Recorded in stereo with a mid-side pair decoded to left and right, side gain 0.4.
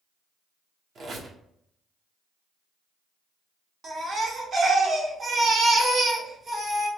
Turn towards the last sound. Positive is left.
turn(degrees=-55)